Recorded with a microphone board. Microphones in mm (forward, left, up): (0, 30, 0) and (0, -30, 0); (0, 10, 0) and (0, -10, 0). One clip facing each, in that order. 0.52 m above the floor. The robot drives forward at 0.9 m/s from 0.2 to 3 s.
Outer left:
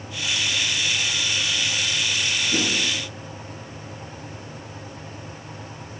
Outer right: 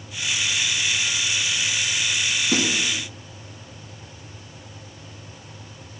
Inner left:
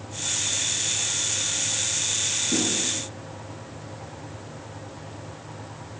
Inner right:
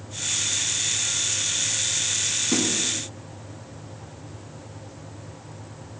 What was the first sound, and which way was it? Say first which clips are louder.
A snare drum: outer right 3 dB, inner right 1 dB; 75° right (ahead or behind).